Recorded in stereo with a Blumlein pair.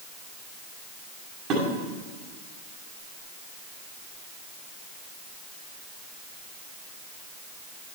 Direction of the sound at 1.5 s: 35° right.